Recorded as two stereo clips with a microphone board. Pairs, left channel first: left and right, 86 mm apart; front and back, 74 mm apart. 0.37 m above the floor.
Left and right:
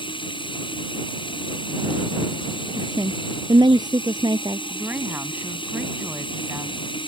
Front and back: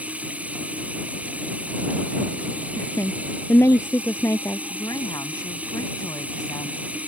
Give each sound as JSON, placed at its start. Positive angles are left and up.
{"t": 0.0, "sound": "running water", "azimuth_deg": 110}
{"t": 2.8, "sound": "a woman speaking", "azimuth_deg": -55}
{"t": 4.7, "sound": "a woman speaking", "azimuth_deg": -20}